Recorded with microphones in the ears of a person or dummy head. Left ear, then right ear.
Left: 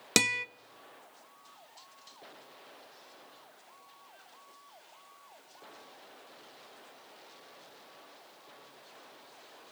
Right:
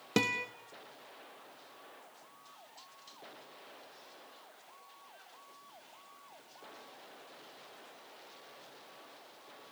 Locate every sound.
0.2 s a guitar: 60° left (ahead or behind), 0.9 m